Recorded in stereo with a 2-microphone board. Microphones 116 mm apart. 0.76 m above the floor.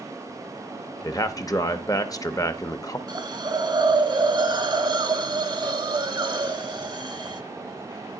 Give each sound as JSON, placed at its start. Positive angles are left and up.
{"t": 1.0, "sound": "a man speaking", "side_deg": 30, "distance_m": 0.7}
{"t": 3.1, "sound": "a hiss", "side_deg": -40, "distance_m": 0.7}